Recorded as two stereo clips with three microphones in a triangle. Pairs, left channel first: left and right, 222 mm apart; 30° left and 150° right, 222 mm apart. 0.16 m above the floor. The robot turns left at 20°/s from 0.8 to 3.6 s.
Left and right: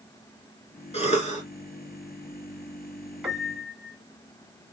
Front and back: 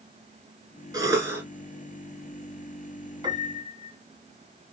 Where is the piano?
170° right, 1.7 m; by 4.0 s straight behind, 1.7 m.